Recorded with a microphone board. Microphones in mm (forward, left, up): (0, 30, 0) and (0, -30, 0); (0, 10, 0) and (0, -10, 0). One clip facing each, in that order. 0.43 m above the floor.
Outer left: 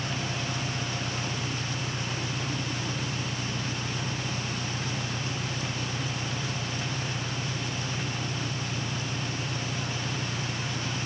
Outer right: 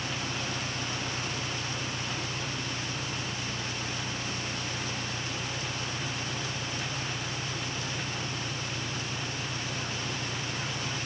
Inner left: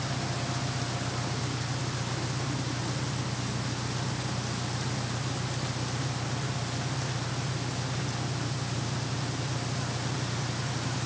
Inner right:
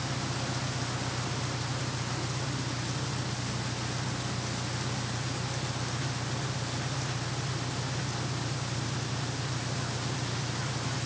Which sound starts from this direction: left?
An engine running, at 0.0 s.